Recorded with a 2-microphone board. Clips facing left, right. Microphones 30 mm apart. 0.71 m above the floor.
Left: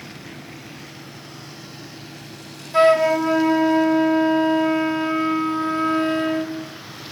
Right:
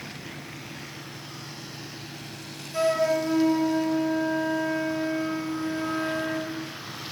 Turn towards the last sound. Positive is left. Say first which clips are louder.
# left 8 dB
turn(degrees=45)  # may be behind; listen again after turning